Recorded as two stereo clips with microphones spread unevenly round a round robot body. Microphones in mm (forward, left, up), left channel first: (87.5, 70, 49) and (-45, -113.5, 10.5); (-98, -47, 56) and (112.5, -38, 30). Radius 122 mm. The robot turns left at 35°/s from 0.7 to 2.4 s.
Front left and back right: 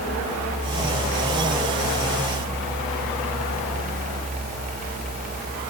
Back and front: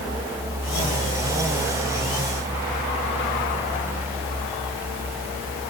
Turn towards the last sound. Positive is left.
No sound to turn to.